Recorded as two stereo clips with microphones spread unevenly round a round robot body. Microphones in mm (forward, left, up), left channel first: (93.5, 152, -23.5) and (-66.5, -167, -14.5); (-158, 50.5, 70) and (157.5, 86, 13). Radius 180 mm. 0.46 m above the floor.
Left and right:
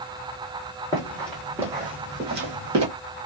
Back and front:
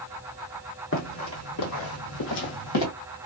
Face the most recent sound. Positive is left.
turn(degrees=-165)